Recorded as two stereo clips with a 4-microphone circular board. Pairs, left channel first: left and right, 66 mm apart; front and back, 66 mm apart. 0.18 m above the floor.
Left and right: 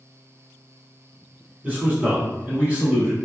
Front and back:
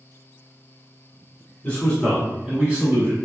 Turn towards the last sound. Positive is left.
turn(degrees=-155)